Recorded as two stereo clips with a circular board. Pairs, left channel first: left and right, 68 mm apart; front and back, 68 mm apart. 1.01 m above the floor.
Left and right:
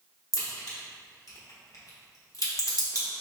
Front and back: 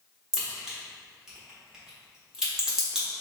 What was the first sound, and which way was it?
A crack, 100° left.